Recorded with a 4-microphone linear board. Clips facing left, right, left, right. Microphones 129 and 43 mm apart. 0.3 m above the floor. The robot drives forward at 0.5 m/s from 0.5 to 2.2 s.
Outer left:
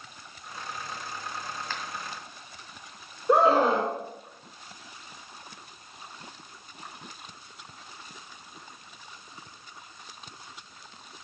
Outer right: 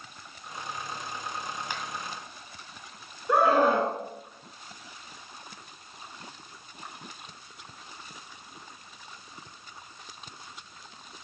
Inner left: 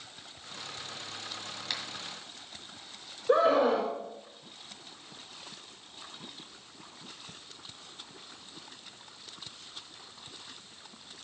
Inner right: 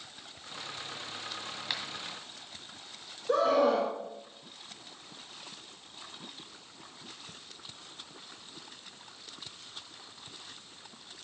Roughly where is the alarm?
No alarm in this recording.